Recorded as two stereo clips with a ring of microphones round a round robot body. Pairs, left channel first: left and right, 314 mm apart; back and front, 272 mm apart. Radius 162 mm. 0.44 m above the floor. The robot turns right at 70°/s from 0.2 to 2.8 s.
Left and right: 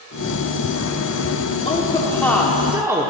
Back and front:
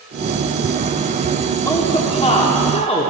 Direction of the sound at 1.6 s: 120° left.